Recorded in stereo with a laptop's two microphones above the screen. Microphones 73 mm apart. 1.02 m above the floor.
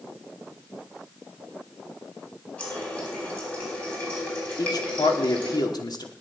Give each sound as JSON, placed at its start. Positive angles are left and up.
{"t": 2.6, "sound": "a running tap", "side_deg": 15, "distance_m": 4.5}
{"t": 4.6, "sound": "a man speaking", "side_deg": 65, "distance_m": 2.5}